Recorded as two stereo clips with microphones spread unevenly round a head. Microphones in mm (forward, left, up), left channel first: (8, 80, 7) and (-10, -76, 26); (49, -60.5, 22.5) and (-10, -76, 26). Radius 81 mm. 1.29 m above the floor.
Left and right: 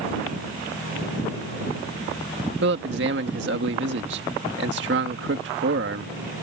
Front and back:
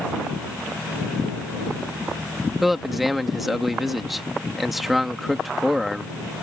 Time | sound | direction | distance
2.6 | a man speaking | 80° right | ?